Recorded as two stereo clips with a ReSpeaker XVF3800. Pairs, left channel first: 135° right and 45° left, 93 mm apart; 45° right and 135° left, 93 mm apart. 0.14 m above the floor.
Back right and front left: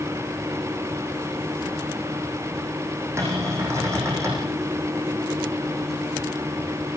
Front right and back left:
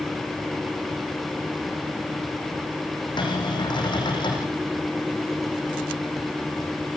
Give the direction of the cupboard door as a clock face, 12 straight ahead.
12 o'clock.